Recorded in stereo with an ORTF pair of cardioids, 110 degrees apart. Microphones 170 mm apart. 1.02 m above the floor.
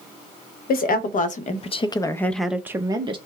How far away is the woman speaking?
About 1.0 m.